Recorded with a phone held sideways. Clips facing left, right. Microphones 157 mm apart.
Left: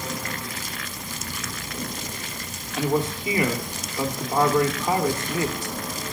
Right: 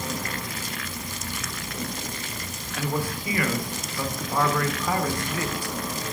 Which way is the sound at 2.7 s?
25° left (ahead or behind).